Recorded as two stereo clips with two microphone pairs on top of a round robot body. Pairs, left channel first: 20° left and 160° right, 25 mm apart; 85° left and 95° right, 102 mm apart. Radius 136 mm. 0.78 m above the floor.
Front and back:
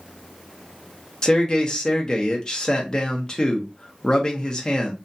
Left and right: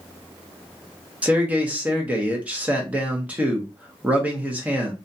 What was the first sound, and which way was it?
A man speaking, 20° right.